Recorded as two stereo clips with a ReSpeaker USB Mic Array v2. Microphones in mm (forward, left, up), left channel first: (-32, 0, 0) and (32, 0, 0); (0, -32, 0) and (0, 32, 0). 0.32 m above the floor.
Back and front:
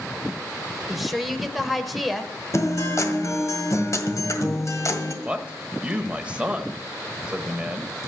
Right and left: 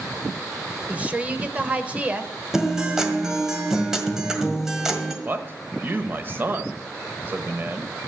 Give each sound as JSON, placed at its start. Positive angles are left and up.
{"t": 0.9, "sound": "a woman speaking", "azimuth_deg": 85, "distance_m": 0.8}
{"t": 2.5, "sound": "a guitar", "azimuth_deg": 170, "distance_m": 1.8}
{"t": 5.2, "sound": "a man speaking", "azimuth_deg": 60, "distance_m": 1.0}